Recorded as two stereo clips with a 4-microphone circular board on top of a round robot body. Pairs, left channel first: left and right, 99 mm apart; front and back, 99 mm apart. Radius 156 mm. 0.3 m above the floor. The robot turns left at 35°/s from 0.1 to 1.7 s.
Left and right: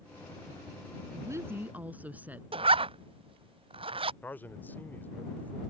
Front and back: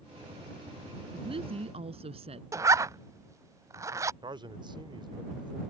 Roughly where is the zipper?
Behind right.